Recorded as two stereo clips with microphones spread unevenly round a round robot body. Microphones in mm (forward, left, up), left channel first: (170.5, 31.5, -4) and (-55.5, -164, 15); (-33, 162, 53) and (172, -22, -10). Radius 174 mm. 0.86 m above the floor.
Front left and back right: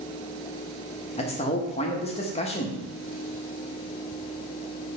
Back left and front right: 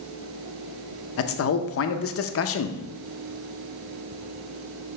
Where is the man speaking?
105° left, 0.8 m.